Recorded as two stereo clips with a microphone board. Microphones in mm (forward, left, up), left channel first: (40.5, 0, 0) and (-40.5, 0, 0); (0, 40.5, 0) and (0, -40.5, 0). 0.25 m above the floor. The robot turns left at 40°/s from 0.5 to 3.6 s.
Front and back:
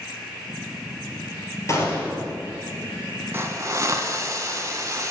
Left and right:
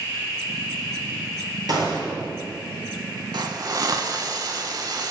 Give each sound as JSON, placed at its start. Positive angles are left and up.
{"t": 1.7, "sound": "a gunshot", "azimuth_deg": -55, "distance_m": 1.6}
{"t": 3.3, "sound": "a hiss", "azimuth_deg": -120, "distance_m": 0.5}